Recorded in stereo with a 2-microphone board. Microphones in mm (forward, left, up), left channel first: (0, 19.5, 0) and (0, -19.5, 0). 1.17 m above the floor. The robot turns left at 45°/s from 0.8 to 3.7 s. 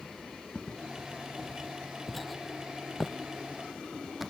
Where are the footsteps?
20° left (ahead or behind); by 4.3 s centre (ahead or behind).